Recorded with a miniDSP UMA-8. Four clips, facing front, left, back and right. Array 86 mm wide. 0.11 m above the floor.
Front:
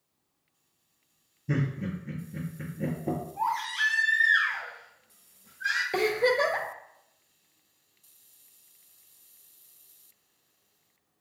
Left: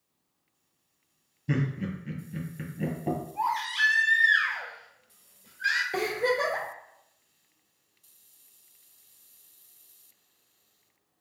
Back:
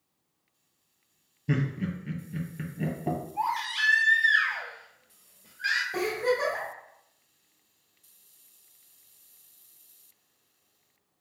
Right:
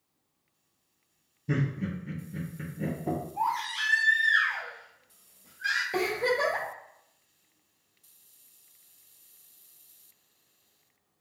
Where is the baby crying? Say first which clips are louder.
Left 3 dB, front 1 dB; 155° left, 1.8 m.